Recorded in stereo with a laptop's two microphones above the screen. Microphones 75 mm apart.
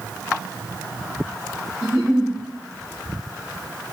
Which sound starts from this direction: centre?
A giggle, at 1.8 s.